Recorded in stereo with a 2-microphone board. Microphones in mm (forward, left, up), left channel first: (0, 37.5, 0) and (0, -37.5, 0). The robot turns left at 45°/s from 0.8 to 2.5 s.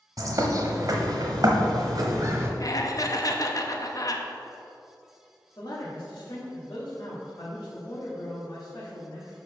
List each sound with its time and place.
0.2 s a bird: 60° right, 1.0 m; by 2.5 s 135° right, 1.0 m
2.6 s laughter: 50° left (ahead or behind), 0.9 m
5.6 s a man speaking: 65° left (ahead or behind), 1.5 m